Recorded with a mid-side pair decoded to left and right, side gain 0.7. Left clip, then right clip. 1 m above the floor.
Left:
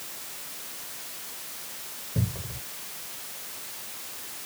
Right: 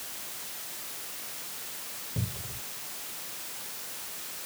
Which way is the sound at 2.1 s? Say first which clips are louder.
Left 5 dB; 25° left.